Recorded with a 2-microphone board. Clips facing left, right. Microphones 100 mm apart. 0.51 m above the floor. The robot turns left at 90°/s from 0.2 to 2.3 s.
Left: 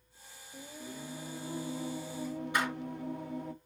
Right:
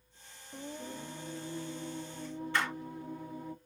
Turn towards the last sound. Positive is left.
turn(degrees=15)  # may be behind; listen again after turning